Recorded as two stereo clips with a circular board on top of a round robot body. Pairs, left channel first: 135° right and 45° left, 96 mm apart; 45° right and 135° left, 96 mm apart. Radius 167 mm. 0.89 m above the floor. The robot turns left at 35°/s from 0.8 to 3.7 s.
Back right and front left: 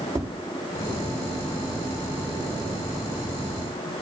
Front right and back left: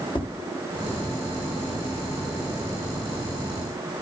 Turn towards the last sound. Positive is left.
turn(degrees=-115)